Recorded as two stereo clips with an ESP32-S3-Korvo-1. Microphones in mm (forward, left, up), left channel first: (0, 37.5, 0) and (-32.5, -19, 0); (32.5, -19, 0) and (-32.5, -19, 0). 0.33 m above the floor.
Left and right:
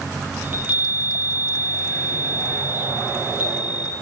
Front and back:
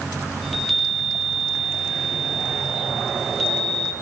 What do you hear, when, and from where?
0.4 s a chime: 85° right, 1.0 m